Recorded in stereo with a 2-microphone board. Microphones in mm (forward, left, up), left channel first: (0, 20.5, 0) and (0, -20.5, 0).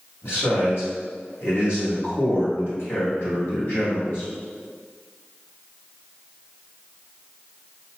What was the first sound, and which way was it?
A man speaking, 60° left (ahead or behind).